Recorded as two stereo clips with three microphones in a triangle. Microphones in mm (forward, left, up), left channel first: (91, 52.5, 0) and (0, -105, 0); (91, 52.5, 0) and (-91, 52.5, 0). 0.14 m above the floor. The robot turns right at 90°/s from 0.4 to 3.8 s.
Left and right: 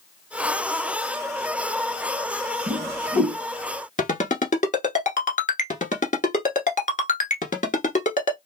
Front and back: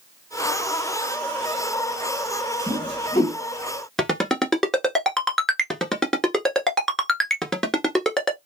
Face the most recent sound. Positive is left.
turn(degrees=85)